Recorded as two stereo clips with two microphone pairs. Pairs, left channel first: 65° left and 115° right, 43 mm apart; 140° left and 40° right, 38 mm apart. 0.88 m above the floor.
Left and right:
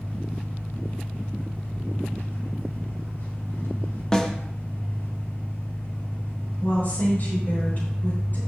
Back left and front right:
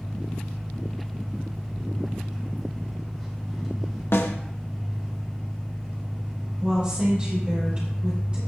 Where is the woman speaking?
25° left, 4 m.